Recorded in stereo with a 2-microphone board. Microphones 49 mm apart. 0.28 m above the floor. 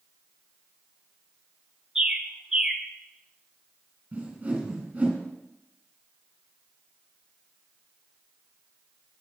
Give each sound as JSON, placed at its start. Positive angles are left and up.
{"t": 1.9, "sound": "a bird", "side_deg": -15, "distance_m": 1.1}
{"t": 4.1, "sound": "a whoosh", "side_deg": -30, "distance_m": 3.0}